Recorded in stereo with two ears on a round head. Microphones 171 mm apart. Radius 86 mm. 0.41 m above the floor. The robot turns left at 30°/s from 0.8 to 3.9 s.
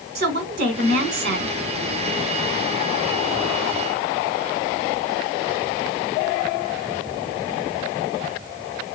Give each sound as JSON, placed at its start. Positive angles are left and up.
{"t": 0.1, "sound": "a woman speaking", "side_deg": -50, "distance_m": 1.6}